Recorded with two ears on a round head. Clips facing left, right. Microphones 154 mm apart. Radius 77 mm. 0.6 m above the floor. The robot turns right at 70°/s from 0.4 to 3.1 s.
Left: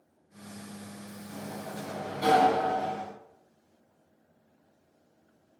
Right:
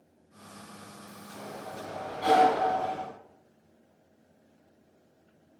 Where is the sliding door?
55° left, 6 m; by 3.0 s straight behind, 6 m.